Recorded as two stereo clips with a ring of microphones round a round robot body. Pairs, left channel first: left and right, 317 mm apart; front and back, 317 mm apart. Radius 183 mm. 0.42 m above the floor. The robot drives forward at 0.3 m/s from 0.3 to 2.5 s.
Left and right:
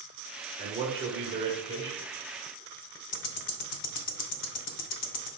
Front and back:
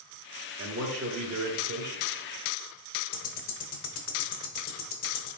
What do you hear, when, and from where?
0.6 s a man speaking: 155° right, 1.0 m; by 2.0 s 165° right, 1.3 m
3.1 s ticking: 65° left, 0.7 m